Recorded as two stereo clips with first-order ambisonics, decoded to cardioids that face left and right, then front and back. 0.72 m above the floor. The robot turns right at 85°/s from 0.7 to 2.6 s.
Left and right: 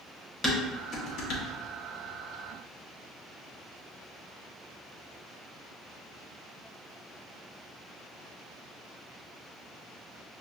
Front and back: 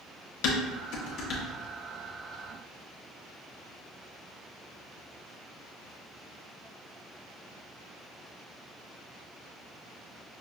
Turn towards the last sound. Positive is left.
turn(degrees=165)